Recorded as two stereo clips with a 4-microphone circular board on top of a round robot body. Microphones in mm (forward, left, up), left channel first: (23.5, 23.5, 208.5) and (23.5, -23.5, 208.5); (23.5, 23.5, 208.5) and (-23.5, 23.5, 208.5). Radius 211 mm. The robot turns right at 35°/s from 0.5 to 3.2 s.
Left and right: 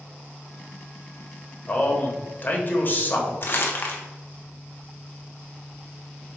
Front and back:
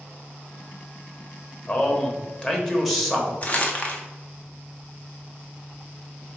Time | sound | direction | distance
1.7 | a man speaking | 40° left | 1.3 m
3.4 | crumpling | 55° left | 1.0 m